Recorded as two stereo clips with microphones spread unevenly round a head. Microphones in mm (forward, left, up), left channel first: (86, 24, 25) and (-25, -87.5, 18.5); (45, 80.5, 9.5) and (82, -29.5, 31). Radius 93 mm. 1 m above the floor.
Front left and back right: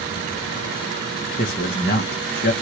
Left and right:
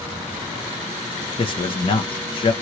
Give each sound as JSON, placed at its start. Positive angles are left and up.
{"t": 1.4, "sound": "a man speaking", "azimuth_deg": 75, "distance_m": 0.6}